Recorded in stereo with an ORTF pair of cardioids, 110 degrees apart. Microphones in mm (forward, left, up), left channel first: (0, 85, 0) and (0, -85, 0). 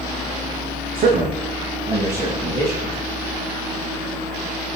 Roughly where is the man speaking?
Ahead right.